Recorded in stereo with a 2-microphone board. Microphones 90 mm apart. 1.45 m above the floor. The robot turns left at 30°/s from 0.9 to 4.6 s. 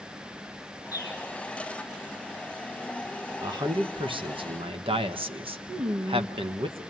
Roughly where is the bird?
Left.